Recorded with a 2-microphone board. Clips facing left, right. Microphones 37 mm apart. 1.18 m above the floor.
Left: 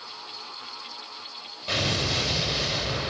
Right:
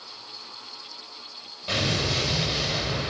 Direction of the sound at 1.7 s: 5° left (ahead or behind).